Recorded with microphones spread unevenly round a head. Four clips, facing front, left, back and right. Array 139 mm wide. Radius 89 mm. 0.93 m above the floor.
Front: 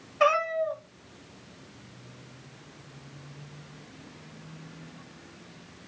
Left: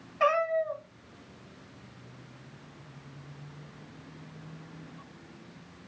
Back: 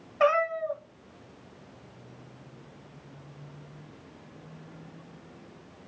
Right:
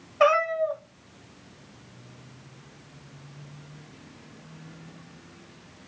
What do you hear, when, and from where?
0.2 s a cat meowing: 75° right, 1.7 m